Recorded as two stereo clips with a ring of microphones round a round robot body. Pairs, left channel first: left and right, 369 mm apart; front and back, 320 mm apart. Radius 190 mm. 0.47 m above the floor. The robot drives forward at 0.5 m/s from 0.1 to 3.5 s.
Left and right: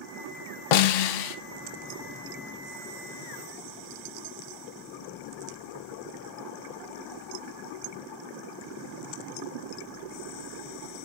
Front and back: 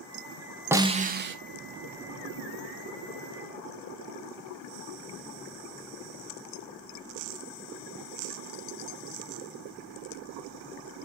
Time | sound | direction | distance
0.7 | a snare drum | 95° left | 0.6 m